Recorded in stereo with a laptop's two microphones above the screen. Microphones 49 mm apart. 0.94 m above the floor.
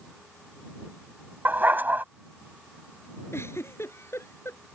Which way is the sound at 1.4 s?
40° right (ahead or behind).